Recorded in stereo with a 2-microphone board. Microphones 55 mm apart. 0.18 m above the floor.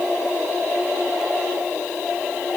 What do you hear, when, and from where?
Only background noise.